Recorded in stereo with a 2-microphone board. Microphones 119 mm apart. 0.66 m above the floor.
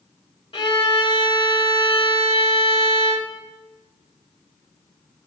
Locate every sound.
0.5 s a violin: 50° left (ahead or behind), 1.2 m